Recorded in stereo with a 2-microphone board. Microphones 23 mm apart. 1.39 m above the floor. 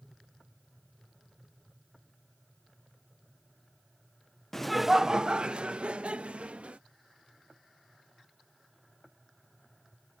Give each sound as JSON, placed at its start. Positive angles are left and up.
{"t": 4.5, "sound": "laughter", "side_deg": 15}